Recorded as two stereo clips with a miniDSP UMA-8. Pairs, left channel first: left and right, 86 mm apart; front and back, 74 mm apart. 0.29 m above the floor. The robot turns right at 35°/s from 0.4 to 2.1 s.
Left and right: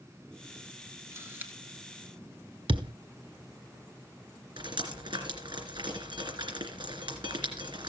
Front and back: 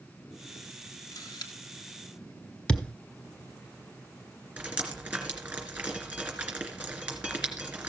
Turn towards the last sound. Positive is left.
turn(degrees=-105)